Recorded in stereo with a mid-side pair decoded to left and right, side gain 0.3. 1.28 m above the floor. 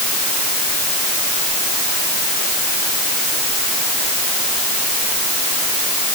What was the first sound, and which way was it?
Only background noise.